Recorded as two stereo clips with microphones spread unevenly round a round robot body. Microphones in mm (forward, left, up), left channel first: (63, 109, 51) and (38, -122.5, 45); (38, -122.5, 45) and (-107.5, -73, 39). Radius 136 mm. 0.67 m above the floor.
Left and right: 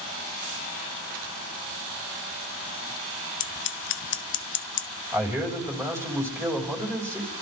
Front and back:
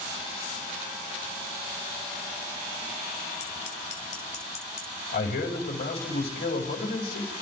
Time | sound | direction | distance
3.4 | scissors | 45° left | 0.6 m
5.1 | a man speaking | 20° right | 3 m